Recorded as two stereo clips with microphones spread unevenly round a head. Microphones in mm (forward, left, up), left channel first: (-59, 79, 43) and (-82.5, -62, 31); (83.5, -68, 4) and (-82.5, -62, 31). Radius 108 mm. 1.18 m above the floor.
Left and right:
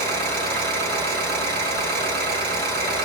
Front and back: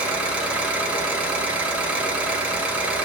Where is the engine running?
100° right, 3.5 m.